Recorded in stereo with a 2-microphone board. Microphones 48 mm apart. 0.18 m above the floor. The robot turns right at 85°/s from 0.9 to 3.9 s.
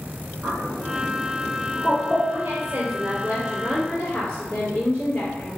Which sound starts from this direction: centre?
A bird, at 0.4 s.